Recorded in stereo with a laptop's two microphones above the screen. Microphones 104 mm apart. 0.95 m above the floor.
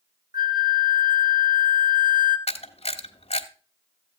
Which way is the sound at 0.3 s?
45° right (ahead or behind).